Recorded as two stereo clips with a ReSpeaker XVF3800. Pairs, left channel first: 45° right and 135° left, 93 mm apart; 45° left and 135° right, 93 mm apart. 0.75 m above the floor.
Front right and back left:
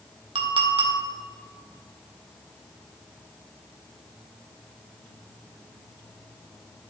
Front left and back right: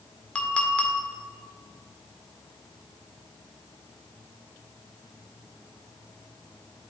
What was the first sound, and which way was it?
A clink, 120° left.